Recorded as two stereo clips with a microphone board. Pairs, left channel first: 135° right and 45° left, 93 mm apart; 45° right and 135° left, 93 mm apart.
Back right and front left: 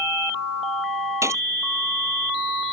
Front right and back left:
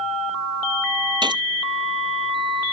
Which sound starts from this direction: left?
A gunshot, at 1.2 s.